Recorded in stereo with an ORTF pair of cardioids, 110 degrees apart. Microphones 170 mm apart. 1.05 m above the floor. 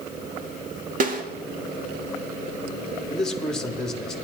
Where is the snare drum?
55° right, 2.0 m.